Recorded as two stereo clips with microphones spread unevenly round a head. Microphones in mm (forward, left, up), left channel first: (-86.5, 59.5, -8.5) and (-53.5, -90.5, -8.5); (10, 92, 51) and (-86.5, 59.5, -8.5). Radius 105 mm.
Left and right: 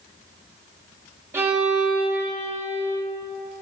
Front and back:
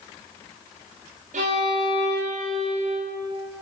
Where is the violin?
150° right, 2 m.